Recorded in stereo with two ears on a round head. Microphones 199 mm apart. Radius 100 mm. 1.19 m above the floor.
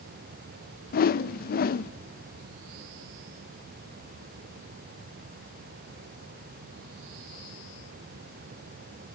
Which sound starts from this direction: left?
A whoosh, at 0.9 s.